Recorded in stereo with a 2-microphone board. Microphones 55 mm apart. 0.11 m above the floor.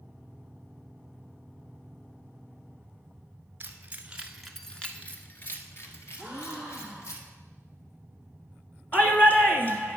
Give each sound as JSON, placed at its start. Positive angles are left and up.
{"t": 3.6, "sound": "keys jangling", "side_deg": -35, "distance_m": 1.2}
{"t": 6.2, "sound": "a gasp", "side_deg": 65, "distance_m": 3.0}
{"t": 8.9, "sound": "a shout", "side_deg": 30, "distance_m": 1.6}